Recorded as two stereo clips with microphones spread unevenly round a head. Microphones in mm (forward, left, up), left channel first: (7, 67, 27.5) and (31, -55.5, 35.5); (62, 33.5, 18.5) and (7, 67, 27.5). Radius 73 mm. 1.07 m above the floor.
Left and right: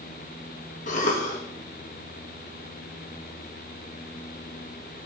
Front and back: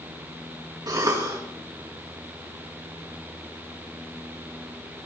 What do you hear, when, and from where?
0.9 s a cough: 120° left, 2 m